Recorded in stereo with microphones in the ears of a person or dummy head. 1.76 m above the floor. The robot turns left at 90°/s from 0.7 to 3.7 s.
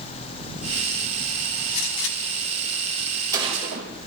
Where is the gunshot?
50° left (ahead or behind), 2.5 m; by 3.9 s 45° right (ahead or behind), 2.5 m.